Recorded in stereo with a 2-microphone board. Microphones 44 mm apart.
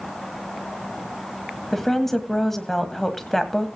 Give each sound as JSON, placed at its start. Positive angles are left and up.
{"t": 1.7, "sound": "a woman speaking", "side_deg": 5, "distance_m": 1.4}